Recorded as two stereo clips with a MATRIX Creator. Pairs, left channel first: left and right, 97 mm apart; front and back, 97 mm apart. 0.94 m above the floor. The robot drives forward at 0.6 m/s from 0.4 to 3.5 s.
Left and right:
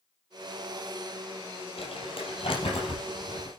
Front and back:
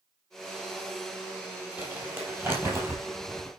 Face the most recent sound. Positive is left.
turn(degrees=120)